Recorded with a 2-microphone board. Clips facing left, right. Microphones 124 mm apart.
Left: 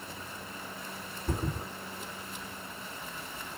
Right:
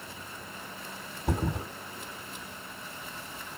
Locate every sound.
1.3 s a thud: 75° right (ahead or behind), 1.2 m